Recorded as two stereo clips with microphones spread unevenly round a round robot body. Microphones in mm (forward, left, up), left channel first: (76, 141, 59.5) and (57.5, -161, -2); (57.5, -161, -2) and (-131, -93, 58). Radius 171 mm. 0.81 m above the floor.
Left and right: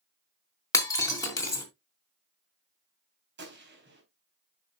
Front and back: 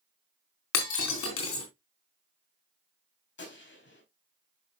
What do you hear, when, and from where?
0.7 s breaking glass: 10° left, 3 m
3.4 s a gunshot: 40° right, 4 m